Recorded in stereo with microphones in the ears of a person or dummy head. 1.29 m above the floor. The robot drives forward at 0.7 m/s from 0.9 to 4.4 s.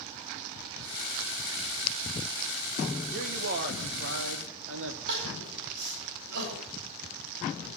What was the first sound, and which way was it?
A man speaking, 45° right (ahead or behind).